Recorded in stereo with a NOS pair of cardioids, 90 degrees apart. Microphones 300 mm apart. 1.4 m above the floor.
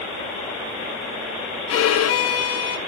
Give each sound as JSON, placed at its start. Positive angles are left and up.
{"t": 1.7, "sound": "a violin", "azimuth_deg": 55, "distance_m": 0.8}